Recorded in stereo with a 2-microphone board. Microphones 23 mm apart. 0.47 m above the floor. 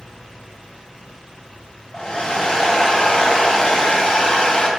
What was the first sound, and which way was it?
A hair dryer, 35° left (ahead or behind).